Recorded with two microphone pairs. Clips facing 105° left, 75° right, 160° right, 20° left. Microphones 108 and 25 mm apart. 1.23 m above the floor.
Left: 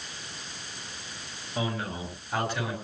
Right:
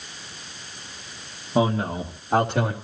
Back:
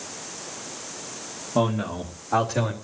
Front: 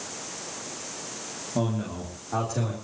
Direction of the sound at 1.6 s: 105° right.